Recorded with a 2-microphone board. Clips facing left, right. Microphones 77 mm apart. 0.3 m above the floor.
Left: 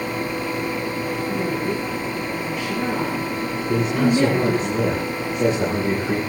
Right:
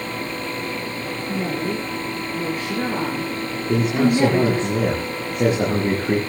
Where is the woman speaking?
45° right (ahead or behind), 8 m; by 4.7 s 25° right (ahead or behind), 8.5 m.